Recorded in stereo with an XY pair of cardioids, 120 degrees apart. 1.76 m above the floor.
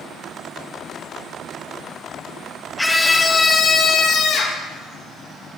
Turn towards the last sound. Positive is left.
turn(degrees=65)